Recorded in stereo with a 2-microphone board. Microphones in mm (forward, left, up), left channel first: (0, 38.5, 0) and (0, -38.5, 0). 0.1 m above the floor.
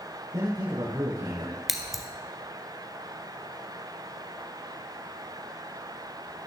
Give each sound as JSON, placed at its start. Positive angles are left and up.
{"t": 0.3, "sound": "a man speaking", "side_deg": -65, "distance_m": 4.0}
{"t": 1.7, "sound": "scissors", "side_deg": -5, "distance_m": 1.1}